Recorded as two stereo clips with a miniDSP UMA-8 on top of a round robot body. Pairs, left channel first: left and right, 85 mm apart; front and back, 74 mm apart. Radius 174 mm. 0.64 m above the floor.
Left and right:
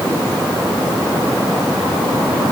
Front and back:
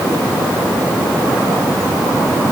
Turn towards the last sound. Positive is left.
No sound to turn to.